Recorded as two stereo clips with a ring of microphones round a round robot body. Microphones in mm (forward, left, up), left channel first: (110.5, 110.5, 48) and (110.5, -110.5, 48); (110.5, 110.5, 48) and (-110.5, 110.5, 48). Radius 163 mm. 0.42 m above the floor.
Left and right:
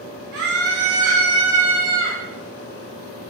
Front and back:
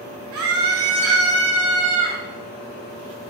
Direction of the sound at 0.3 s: 145° right.